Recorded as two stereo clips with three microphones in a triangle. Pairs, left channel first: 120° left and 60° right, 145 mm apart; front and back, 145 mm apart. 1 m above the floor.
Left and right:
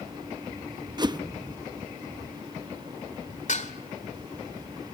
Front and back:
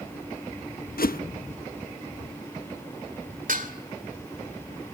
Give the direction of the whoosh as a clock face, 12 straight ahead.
12 o'clock.